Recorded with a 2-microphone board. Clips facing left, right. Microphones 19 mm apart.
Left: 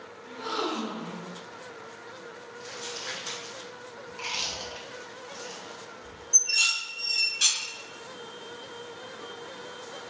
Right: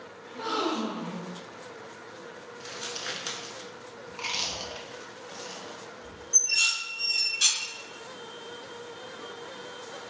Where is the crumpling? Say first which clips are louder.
Right 1 dB; 45° right (ahead or behind), 0.8 m.